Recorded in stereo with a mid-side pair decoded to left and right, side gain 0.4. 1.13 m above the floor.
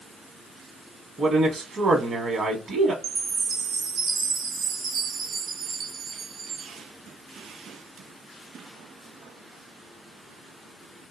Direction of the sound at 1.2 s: 45° right.